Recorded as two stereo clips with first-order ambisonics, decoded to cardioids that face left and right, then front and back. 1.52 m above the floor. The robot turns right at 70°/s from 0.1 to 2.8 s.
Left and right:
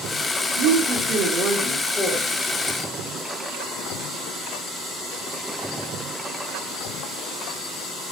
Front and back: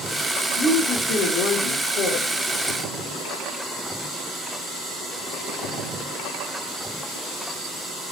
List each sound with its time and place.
0.6 s a woman speaking: 85° right, 0.8 m; by 2.3 s 40° left, 0.8 m